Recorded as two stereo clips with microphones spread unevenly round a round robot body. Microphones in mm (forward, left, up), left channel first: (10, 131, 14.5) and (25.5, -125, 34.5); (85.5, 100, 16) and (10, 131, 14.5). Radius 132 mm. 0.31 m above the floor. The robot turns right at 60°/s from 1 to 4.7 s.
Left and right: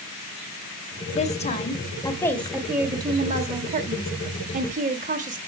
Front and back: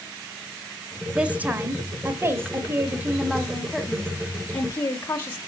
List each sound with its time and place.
1.1 s a woman speaking: 90° left, 0.9 m; by 5.4 s 55° right, 0.9 m